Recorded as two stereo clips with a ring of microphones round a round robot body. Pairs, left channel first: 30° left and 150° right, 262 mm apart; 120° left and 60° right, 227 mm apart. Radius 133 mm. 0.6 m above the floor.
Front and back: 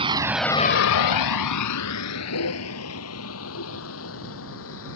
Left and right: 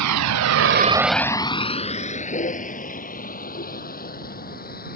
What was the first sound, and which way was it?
A vehicle, 80° right.